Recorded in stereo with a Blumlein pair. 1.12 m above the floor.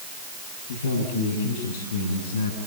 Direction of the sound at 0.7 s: 65° left.